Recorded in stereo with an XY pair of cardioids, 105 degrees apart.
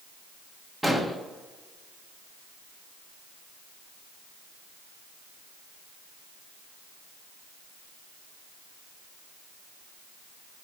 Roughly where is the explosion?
Ahead.